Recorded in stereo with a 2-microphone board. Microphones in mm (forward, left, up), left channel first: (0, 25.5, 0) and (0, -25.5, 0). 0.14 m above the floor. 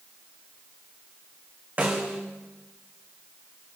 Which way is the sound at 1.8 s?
35° right (ahead or behind).